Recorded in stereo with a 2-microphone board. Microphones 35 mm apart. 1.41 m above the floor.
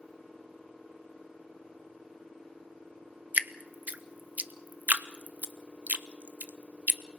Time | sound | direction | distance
3.3 | dripping | 45° right (ahead or behind) | 0.6 m